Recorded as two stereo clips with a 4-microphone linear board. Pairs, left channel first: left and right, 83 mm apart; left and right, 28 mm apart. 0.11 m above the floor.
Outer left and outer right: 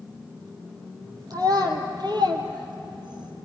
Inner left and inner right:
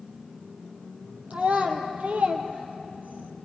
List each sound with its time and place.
1.3 s a child speaking: 50° right (ahead or behind), 3 m; by 3.3 s 65° right (ahead or behind), 2.5 m